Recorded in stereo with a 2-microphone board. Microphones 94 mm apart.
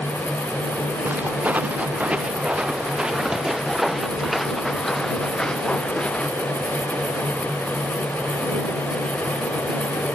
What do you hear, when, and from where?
1.1 s footsteps: 20° right (ahead or behind); by 6.3 s 10° left (ahead or behind)